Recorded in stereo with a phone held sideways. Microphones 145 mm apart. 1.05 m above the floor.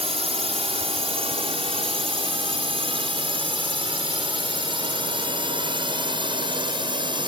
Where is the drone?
45° right (ahead or behind); by 7.3 s 35° right (ahead or behind).